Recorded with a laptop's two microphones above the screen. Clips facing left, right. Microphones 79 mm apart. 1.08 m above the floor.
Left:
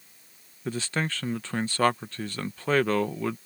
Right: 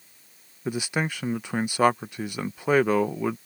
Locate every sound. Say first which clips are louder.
0.7 s a man speaking: right 2 dB; 15° right (ahead or behind)